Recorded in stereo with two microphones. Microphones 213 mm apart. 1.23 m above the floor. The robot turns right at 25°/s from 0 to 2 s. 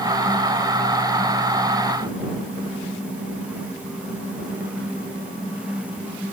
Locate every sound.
Only background noise.